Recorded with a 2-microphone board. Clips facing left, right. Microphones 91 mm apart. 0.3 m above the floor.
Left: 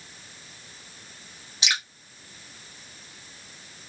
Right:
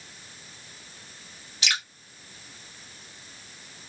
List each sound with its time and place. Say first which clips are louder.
1.6 s dripping: left 1 dB; 20° left (ahead or behind), 2 m